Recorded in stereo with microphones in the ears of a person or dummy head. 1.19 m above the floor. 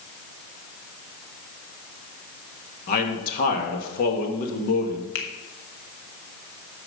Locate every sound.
2.9 s a man speaking: 50° left (ahead or behind), 2 m
5.2 s a finger snap: 80° left, 1.5 m